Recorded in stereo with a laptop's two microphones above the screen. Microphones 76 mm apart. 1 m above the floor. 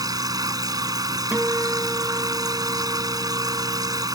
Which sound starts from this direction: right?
A machine running, at 0.0 s.